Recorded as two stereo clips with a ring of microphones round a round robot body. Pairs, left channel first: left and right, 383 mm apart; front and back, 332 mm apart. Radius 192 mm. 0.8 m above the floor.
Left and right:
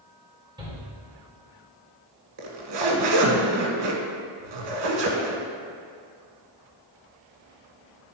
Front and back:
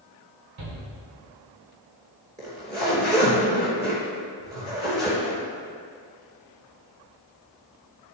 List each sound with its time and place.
0.6 s a shout: 170° right, 2.5 m
2.4 s a zipper: 100° right, 1.4 m